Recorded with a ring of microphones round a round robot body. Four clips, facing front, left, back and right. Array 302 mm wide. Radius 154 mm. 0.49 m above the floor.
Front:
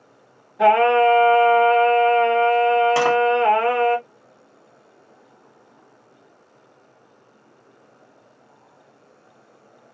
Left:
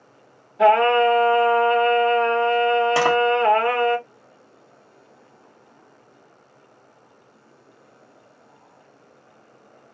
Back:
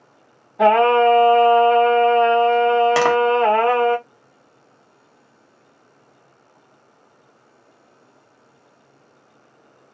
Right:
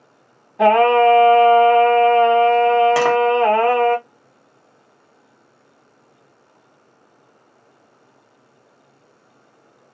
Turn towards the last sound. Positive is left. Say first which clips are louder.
# right 3 dB, back 2 dB
turn(degrees=-175)